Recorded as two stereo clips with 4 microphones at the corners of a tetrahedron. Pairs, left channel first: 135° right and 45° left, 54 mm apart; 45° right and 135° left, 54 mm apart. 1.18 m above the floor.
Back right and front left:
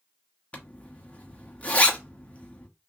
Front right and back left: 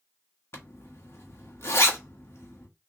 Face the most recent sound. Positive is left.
turn(degrees=-75)